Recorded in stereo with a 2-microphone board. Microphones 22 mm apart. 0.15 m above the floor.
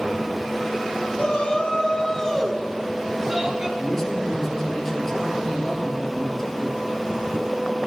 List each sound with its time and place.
1.1 s a shout: 55° left (ahead or behind), 2.5 m; by 3.7 s 25° right (ahead or behind), 2.5 m
3.8 s a man speaking: 15° left (ahead or behind), 3.5 m